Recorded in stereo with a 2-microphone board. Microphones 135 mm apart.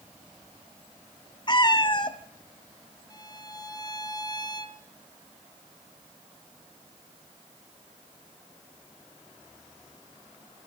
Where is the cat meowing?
35° left (ahead or behind), 1.2 m.